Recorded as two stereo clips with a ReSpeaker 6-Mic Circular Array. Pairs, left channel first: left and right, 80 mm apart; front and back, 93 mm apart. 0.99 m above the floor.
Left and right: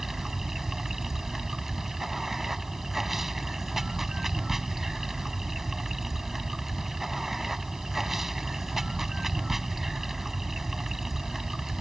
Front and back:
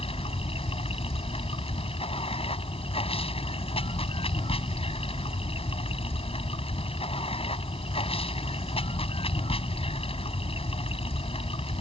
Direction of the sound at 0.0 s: 5° right.